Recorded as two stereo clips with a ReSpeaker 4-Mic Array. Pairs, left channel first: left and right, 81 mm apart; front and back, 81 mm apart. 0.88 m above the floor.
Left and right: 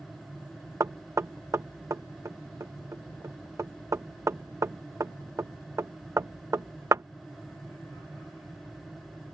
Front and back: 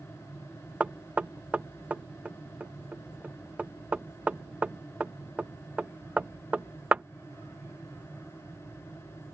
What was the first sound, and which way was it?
Knocking, 115° right.